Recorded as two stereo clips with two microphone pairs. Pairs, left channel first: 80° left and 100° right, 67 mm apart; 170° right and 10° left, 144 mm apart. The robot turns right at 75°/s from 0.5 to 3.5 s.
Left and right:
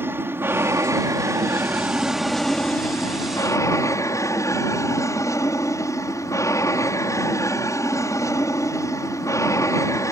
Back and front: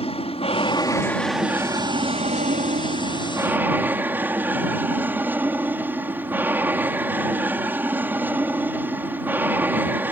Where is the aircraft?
145° right; by 10.1 s 80° left.